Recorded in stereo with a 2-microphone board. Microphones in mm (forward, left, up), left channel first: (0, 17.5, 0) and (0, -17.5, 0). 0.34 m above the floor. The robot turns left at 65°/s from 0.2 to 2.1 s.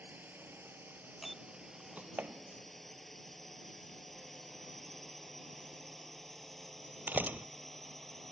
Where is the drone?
60° right (ahead or behind); by 8.3 s 5° left (ahead or behind).